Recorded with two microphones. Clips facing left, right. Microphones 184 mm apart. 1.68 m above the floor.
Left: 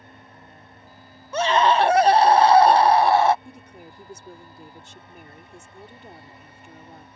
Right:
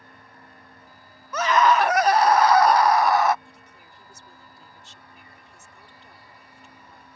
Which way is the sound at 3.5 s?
55° left (ahead or behind).